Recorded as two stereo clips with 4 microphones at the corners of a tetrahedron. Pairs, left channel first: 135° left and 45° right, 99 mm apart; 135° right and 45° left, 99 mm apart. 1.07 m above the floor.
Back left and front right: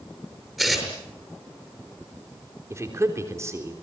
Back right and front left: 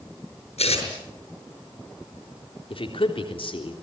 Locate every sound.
0.6 s tearing paper: 135° right, 7 m
2.7 s a man speaking: 105° right, 3.5 m